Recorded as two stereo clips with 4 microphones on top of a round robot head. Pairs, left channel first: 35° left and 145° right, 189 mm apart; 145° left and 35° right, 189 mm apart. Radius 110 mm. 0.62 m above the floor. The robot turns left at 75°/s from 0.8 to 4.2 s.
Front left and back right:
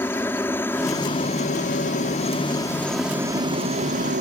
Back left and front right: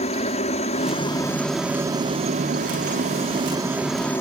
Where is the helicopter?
110° left; by 4.2 s 145° right.